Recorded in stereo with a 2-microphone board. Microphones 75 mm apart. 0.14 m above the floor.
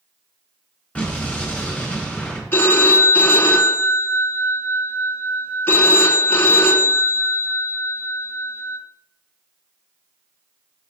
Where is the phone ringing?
30° left (ahead or behind), 0.7 m.